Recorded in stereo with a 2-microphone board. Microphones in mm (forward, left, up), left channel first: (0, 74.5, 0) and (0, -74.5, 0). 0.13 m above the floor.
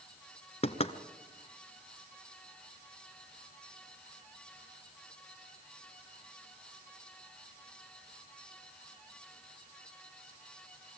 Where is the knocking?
45° left (ahead or behind), 1.0 m.